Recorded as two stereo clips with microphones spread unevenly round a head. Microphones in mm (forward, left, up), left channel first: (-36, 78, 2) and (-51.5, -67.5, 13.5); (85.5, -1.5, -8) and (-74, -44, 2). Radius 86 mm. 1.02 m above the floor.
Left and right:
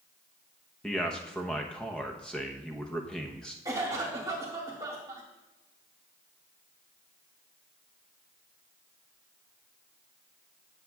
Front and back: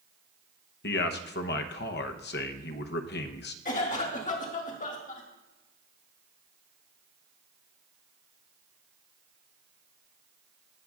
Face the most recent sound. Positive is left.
turn(degrees=-20)